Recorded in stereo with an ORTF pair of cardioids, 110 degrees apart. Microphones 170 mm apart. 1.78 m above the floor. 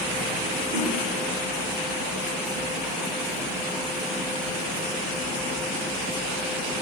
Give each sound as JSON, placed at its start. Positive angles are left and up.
{"t": 0.7, "sound": "a whoosh", "azimuth_deg": -45, "distance_m": 4.0}